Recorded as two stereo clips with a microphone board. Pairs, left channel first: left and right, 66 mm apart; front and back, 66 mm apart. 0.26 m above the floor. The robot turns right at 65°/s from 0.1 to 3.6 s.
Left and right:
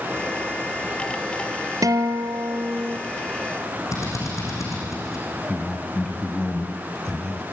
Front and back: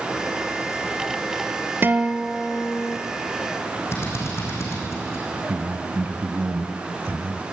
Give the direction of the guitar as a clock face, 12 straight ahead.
4 o'clock.